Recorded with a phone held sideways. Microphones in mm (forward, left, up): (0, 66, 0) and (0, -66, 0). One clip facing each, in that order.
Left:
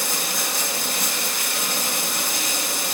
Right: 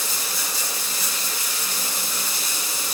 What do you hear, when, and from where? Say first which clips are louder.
0.0 s running water: left 4 dB; 65° left (ahead or behind), 1.2 m